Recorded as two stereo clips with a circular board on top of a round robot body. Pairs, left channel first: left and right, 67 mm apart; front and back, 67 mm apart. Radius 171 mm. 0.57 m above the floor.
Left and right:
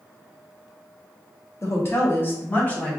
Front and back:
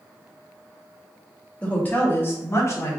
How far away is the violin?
I don't hear a violin.